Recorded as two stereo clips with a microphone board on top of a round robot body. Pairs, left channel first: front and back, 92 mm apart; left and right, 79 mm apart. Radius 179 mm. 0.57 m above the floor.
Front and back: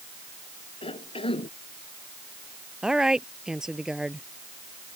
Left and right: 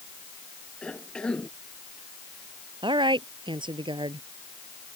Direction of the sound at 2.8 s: 95° right.